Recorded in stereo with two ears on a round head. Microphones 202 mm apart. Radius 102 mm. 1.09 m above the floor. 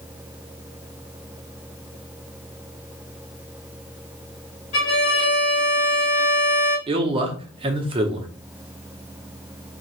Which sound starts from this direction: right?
A man speaking, at 6.9 s.